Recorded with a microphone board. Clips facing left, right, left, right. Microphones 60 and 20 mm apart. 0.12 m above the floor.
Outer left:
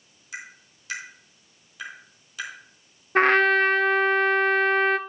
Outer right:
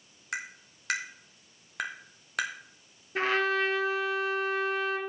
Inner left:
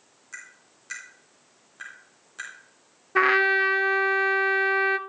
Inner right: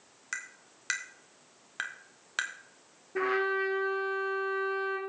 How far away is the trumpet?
About 0.6 m.